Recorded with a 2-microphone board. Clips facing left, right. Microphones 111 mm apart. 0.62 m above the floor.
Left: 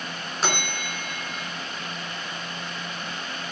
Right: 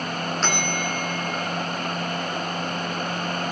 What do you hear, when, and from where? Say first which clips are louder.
0.4 s a bell: even; 10° left (ahead or behind), 1.4 m